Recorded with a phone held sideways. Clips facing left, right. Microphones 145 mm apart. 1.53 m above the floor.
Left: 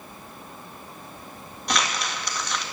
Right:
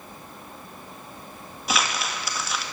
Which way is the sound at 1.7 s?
5° right (ahead or behind).